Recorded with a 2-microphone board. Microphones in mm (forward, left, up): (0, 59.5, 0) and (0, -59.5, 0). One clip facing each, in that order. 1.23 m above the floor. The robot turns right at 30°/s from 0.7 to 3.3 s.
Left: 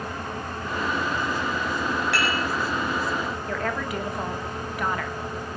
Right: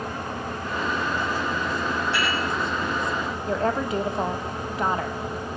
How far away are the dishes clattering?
About 6.5 m.